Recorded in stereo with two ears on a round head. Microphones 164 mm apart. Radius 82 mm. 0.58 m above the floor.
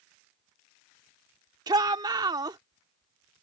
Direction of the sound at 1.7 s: 20° right (ahead or behind).